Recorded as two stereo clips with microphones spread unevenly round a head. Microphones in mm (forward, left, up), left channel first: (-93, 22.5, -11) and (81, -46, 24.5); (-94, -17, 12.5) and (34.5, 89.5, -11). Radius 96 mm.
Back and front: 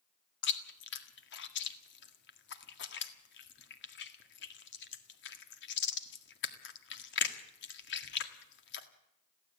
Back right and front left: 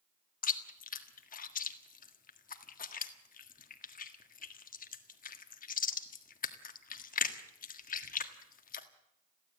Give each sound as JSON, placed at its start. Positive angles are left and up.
{"t": 0.4, "sound": "chewing", "azimuth_deg": 180, "distance_m": 1.7}